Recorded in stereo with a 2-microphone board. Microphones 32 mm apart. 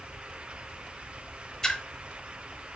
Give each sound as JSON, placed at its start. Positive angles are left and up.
{"t": 1.6, "sound": "a splash", "side_deg": 20, "distance_m": 0.8}